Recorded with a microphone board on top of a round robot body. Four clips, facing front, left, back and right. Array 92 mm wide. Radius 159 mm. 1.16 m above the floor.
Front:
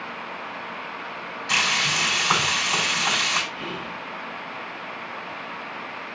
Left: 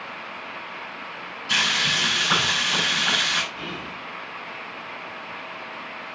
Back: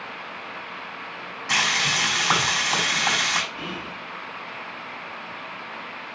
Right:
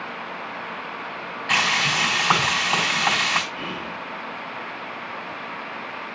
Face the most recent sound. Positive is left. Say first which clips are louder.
# right 3 dB, front 1 dB
turn(degrees=-120)